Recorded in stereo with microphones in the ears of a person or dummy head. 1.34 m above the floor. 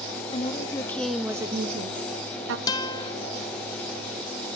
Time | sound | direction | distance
0.3 | a woman speaking | 25° left (ahead or behind) | 2 m
2.7 | a guitar | 20° left (ahead or behind) | 1.3 m